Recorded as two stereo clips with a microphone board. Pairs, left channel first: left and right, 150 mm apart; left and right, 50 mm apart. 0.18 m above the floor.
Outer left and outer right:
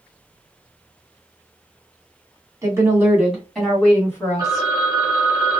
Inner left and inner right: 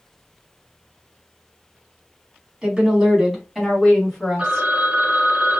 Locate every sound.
2.6 s a woman speaking: 20° right (ahead or behind), 1.7 m; by 4.7 s 25° left (ahead or behind), 1.8 m
4.4 s a phone ringing: 30° right (ahead or behind), 1.1 m